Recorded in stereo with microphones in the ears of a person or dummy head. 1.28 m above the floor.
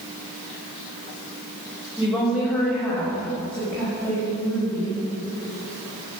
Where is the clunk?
I don't hear a clunk.